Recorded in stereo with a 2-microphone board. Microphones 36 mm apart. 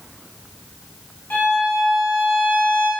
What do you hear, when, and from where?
1.3 s a violin: 70° left (ahead or behind), 1.1 m